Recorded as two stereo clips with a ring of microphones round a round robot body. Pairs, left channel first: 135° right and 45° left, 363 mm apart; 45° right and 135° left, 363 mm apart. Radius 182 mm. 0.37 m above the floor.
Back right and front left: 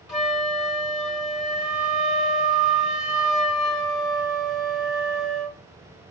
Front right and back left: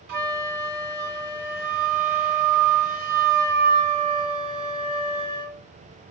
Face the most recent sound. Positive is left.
turn(degrees=135)